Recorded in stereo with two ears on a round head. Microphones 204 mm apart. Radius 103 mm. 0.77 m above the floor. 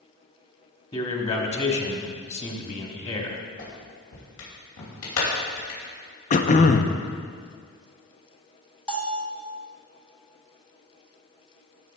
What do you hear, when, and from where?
0.9 s a man speaking: 25° left (ahead or behind), 1.4 m
3.6 s a clap: 85° left, 3 m
6.3 s throat clearing: 35° left (ahead or behind), 0.5 m
8.9 s a bell: 5° left (ahead or behind), 1.0 m